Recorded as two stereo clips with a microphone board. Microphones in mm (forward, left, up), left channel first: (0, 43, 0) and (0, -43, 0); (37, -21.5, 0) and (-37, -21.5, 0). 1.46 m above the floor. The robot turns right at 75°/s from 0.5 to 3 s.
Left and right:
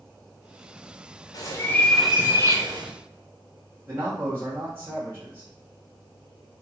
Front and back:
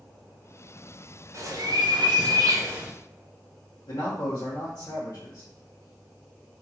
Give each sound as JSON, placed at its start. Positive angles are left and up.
{"t": 1.3, "sound": "a bird", "azimuth_deg": 130, "distance_m": 0.9}
{"t": 3.9, "sound": "a man speaking", "azimuth_deg": -30, "distance_m": 1.4}